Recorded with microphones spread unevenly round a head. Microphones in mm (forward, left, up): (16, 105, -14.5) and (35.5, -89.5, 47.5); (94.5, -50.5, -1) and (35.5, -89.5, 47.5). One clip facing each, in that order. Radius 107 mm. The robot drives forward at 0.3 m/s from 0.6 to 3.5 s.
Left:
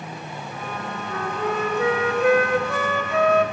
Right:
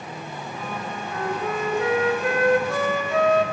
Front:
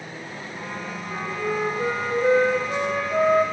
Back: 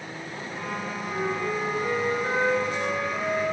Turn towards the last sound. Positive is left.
turn(degrees=90)